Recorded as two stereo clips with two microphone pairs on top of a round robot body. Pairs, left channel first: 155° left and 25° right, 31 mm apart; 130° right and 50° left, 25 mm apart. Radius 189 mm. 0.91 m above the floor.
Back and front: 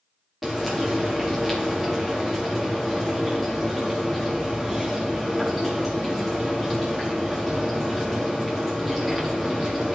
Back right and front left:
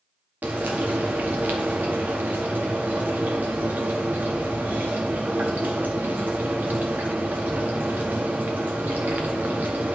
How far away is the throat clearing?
No throat clearing in this recording.